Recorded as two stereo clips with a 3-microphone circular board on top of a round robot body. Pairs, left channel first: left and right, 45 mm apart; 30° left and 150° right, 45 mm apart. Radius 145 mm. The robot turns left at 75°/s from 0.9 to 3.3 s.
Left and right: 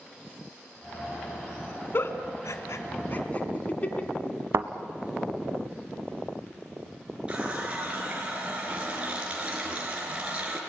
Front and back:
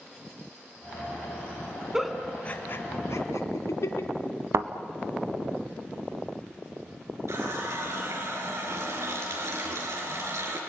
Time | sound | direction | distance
1.9 | a giggle | 130° left | 1.9 m
4.5 | a thud | 125° right | 0.7 m
7.3 | a running tap | 155° right | 5 m